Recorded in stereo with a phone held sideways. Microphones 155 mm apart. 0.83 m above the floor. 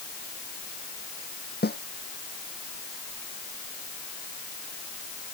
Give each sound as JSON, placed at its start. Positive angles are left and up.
{"t": 1.6, "sound": "a snare drum", "side_deg": 80}